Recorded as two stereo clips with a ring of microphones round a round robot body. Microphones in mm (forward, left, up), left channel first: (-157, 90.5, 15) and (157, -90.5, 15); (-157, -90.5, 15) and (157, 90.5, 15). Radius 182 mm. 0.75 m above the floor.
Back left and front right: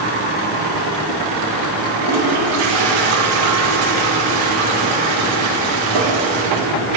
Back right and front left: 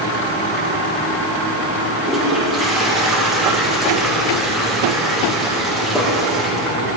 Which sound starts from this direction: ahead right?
A toilet flushing, at 2.0 s.